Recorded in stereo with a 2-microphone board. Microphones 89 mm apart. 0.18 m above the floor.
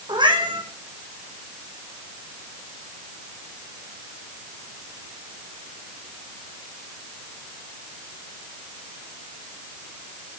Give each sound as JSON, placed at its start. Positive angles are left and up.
{"t": 0.1, "sound": "a cat meowing", "side_deg": -60, "distance_m": 3.0}